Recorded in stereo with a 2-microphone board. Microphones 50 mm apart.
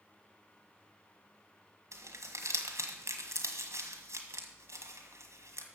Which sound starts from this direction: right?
Crumpling, at 1.9 s.